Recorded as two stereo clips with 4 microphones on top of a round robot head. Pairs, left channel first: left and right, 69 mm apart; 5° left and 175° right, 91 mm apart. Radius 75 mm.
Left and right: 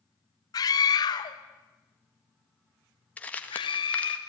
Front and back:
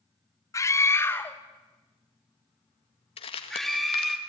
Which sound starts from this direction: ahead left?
A scream, at 0.5 s.